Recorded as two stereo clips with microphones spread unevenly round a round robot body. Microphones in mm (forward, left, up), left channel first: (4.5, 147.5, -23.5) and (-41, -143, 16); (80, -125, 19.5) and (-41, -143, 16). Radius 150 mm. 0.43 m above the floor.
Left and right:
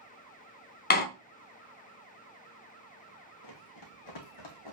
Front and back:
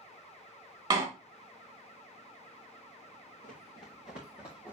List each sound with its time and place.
0.9 s a door slam: 130° left, 0.8 m
3.4 s running footsteps: 45° left, 2.0 m; by 4.7 s 90° left, 1.9 m